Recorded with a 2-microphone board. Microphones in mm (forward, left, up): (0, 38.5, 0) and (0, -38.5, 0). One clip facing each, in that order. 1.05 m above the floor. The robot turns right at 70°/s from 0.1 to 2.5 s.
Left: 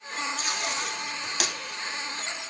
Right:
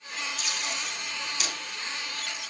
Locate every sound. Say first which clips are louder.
0.4 s tape being pulled: left 4 dB; 35° left (ahead or behind), 2 m; by 1.5 s 60° left (ahead or behind), 2 m